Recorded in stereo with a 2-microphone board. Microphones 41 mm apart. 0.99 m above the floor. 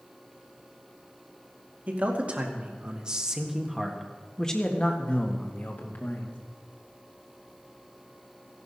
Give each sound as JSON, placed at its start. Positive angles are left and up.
{"t": 1.9, "sound": "a man speaking", "side_deg": -40, "distance_m": 2.5}